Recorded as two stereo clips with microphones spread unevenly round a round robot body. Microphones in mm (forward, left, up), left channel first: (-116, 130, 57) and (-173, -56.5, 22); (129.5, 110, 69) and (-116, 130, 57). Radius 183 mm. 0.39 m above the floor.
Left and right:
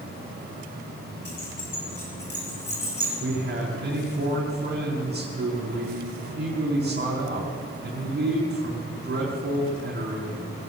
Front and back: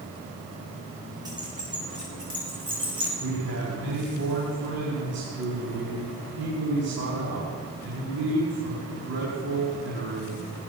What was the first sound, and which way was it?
Keys jangling, 100° left.